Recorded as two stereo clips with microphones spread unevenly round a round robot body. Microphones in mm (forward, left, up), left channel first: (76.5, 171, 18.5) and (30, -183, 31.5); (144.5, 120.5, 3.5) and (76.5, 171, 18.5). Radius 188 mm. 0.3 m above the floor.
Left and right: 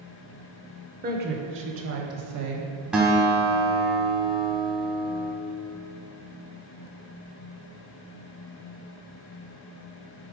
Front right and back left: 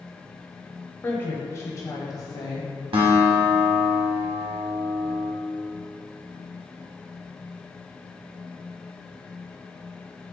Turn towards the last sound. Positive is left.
turn(degrees=175)